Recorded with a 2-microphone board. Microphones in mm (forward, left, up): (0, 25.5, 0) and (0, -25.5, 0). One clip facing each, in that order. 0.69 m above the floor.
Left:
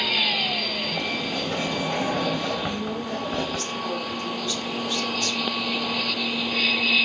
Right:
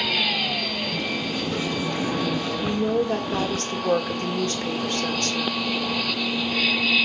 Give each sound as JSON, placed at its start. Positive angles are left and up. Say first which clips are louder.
{"t": 0.9, "sound": "a sliding door", "louder": "even", "side_deg": 50, "distance_m": 4.0}
{"t": 2.6, "sound": "a woman speaking", "louder": "right 6 dB", "side_deg": -45, "distance_m": 1.9}